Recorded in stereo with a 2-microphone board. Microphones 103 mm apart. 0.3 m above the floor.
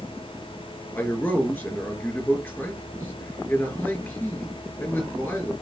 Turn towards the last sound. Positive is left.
turn(degrees=15)  # may be behind; listen again after turning